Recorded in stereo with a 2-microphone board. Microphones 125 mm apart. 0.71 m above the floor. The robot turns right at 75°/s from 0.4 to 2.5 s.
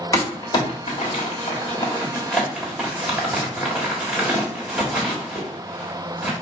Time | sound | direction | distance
0.1 | crumpling | 25° left (ahead or behind) | 1.6 m